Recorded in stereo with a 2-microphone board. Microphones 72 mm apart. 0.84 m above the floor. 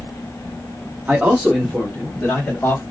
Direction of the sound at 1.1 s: 25° right (ahead or behind).